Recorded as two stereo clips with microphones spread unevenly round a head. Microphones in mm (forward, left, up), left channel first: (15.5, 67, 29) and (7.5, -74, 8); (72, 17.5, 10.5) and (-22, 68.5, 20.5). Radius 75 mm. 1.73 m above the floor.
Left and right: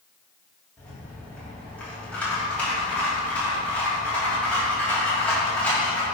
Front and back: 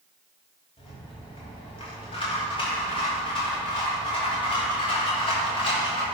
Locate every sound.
0.8 s a rattle: 10° left, 3 m